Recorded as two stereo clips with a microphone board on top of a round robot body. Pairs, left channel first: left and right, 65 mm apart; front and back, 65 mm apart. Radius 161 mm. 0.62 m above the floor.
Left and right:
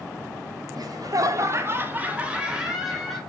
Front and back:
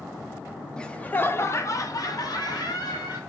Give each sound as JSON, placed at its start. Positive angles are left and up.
{"t": 0.8, "sound": "laughter", "azimuth_deg": -75, "distance_m": 1.8}